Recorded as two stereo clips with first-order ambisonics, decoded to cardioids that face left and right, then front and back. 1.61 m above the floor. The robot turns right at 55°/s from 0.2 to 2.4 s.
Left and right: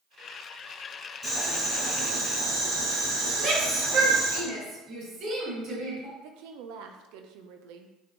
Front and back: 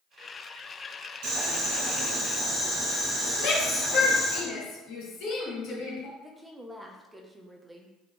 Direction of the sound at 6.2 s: 95° right.